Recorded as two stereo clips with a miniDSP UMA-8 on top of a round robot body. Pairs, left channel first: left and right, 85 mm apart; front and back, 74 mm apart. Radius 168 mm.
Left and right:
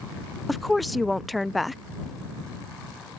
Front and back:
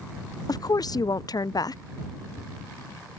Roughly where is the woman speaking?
Ahead.